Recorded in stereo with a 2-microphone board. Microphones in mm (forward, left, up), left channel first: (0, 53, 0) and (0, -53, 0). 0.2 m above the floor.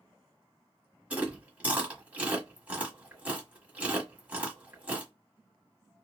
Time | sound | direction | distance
1.1 | chewing | 15° right (ahead or behind) | 1.3 m